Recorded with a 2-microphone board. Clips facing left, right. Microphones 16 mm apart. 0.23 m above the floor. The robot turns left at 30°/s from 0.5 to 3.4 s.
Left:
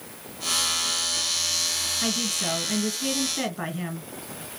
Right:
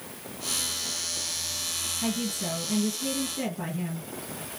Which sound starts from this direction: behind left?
A woman speaking, at 2.0 s.